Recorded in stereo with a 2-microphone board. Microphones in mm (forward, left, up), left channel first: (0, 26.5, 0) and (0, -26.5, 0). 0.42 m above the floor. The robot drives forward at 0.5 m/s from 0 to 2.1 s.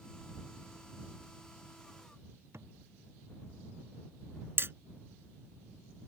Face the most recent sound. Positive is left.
turn(degrees=-50)  # may be behind; listen again after turning